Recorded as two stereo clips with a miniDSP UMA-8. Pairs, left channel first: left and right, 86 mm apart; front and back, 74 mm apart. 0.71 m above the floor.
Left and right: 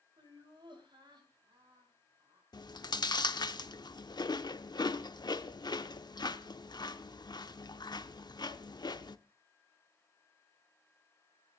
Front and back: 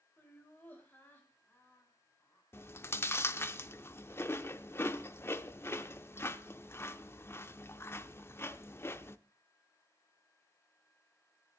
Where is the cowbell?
No cowbell in this recording.